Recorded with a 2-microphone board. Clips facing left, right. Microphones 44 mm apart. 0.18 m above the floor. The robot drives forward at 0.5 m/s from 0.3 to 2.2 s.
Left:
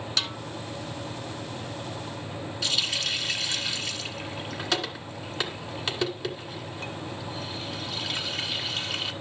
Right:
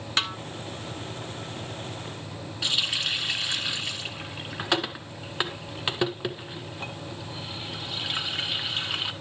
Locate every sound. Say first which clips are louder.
0.2 s a snare drum: right 4 dB; 35° right (ahead or behind), 0.9 m
2.6 s a running tap: right 2 dB; 20° right (ahead or behind), 1.3 m